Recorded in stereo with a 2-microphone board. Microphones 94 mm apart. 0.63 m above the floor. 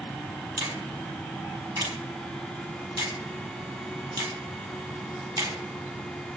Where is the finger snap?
40° right (ahead or behind), 4 m.